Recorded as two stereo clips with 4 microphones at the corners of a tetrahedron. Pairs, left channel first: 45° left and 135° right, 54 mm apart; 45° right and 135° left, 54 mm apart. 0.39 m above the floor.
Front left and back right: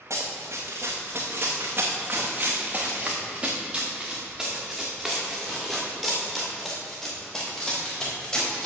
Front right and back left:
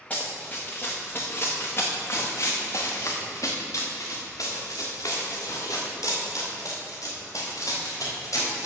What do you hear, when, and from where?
0.1 s running footsteps: 110° right, 2 m; by 8.7 s 30° right, 4.5 m